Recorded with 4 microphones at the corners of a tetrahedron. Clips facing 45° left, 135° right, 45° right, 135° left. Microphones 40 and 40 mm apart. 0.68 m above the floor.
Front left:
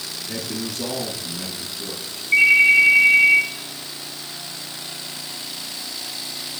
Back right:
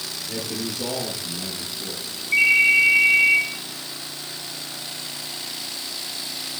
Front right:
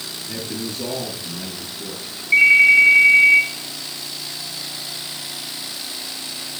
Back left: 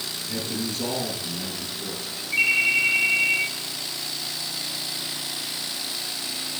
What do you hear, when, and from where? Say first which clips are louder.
0.3 s a man speaking: front left 1 dB, front right 1 dB; 20° left, 7.5 m
2.3 s a ringtone: front left 3 dB, front right 10 dB; 20° right, 5.5 m